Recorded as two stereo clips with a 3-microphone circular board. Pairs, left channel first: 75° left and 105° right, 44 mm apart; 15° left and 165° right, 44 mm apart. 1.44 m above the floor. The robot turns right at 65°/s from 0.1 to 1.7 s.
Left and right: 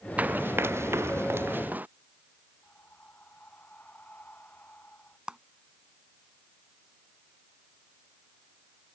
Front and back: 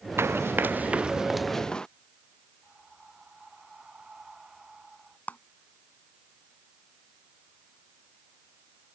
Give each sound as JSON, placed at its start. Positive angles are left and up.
{"t": 0.2, "sound": "running footsteps", "azimuth_deg": -155}
{"t": 2.6, "sound": "breathing", "azimuth_deg": 125}
{"t": 5.3, "sound": "a clap", "azimuth_deg": -35}